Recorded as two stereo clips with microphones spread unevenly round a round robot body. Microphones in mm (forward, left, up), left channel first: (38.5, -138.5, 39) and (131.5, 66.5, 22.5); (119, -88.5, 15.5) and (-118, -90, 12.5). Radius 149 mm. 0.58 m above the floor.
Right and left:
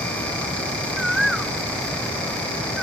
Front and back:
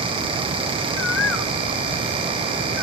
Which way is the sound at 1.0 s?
25° right.